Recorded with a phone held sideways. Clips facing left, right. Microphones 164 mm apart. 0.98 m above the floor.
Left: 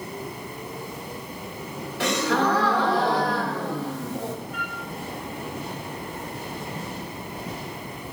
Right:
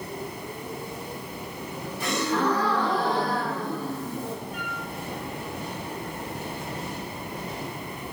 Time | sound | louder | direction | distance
2.0 | a gasp | left 3 dB | 75° left (ahead or behind) | 3 m
4.5 | a flute | even | 30° right (ahead or behind) | 5.5 m